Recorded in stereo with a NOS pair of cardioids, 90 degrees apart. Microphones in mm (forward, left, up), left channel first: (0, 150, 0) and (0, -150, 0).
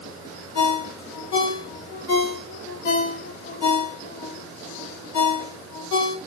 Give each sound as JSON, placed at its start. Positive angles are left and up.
{"t": 0.6, "sound": "a ringtone", "azimuth_deg": 65, "distance_m": 1.8}